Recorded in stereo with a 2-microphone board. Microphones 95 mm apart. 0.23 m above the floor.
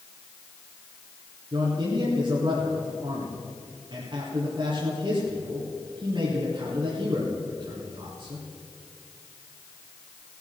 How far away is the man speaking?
About 2.5 m.